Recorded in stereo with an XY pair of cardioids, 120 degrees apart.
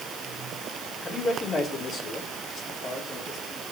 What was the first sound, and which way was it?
A man speaking, 40° left.